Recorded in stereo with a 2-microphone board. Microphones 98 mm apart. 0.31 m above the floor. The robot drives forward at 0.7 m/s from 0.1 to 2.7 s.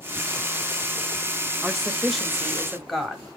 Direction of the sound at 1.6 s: 5° right (ahead or behind).